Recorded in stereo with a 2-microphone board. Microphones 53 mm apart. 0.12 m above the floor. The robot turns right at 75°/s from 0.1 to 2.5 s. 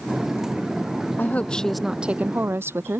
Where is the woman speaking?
135° left; by 3.0 s 125° right.